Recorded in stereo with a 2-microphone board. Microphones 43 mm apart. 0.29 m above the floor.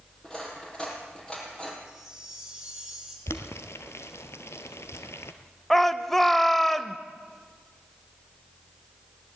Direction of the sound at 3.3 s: 80° left.